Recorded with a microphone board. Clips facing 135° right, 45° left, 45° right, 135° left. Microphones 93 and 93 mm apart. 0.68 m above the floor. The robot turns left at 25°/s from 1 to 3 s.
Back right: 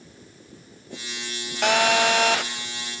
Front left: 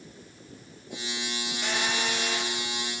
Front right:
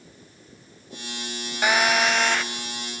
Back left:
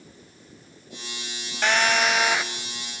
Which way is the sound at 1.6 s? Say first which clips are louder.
Back right 11 dB, front right 1 dB; 125° right.